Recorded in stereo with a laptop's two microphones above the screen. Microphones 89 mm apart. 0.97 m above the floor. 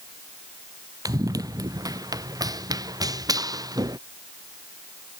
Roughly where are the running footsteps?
Right.